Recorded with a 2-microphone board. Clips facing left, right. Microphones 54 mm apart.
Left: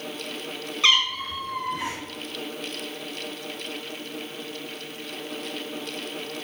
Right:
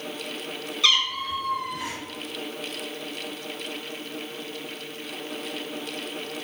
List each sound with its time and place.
0.8 s a cat meowing: 30° left (ahead or behind), 0.7 m